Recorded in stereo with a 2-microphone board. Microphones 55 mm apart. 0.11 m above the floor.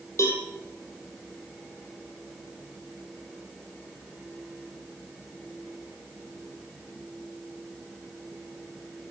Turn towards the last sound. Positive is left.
turn(degrees=65)  # may be behind; listen again after turning